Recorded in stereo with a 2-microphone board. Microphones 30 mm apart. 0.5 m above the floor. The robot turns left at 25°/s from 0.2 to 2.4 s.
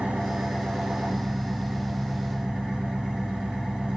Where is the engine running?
95° right, 1.8 m; by 4.0 s 150° right, 1.8 m.